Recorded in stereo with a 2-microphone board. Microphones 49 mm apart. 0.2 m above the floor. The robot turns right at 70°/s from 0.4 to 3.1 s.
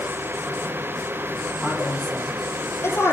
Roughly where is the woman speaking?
Centre.